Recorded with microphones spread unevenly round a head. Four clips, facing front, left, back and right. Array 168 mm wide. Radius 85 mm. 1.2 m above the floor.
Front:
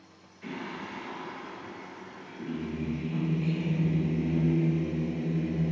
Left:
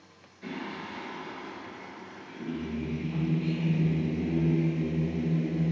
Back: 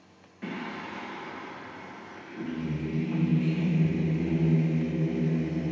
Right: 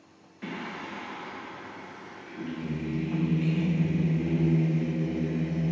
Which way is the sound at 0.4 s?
150° right.